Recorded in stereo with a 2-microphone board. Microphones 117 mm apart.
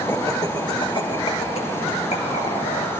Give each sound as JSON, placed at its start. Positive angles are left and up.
{"t": 0.1, "sound": "laughter", "side_deg": 20, "distance_m": 1.8}